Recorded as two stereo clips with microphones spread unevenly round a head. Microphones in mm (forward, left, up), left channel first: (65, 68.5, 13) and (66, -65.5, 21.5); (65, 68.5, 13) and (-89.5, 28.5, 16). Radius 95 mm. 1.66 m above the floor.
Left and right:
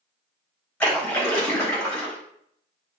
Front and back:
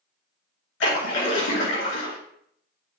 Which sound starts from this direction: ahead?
A splash, at 0.8 s.